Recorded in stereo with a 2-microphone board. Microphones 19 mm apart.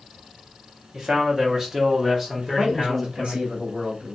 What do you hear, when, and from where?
0.9 s a man speaking: 35° right (ahead or behind), 0.9 m; by 3.4 s 15° right (ahead or behind), 1.6 m
2.4 s a man speaking: 65° right (ahead or behind), 1.2 m